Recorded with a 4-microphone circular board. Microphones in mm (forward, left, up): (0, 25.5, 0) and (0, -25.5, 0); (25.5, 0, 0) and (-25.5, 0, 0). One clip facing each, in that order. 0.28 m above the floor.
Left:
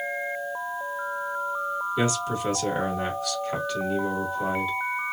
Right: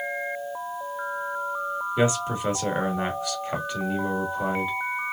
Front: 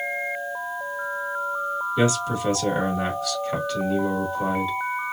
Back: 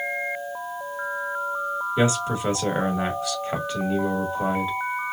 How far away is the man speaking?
About 1.3 m.